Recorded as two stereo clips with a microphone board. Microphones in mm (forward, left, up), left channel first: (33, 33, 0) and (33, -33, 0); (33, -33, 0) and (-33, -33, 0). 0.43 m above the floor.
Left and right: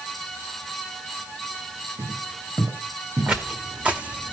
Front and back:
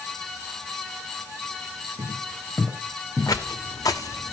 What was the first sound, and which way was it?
Footsteps, 55° right.